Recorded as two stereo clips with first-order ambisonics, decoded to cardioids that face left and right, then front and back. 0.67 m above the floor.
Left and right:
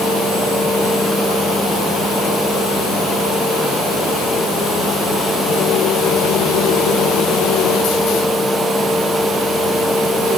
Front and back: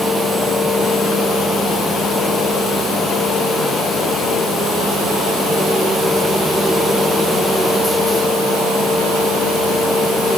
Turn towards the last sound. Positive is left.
No sound to turn to.